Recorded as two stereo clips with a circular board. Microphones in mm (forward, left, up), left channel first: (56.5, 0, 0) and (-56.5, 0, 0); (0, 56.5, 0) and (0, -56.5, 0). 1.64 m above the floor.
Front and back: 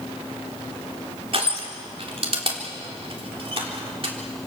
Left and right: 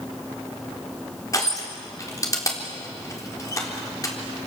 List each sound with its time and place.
1.3 s crushing: 150° left, 4 m